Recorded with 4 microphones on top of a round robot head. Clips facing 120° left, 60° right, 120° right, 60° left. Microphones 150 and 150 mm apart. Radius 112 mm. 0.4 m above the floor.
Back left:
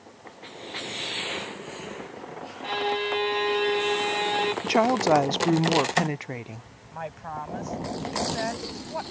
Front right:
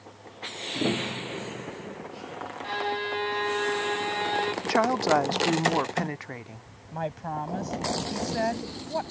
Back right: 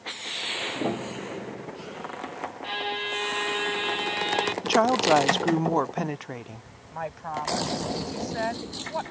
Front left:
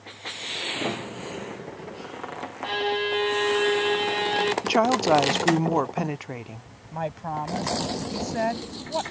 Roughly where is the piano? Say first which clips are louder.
Front right 11 dB, back right 2 dB; ahead right.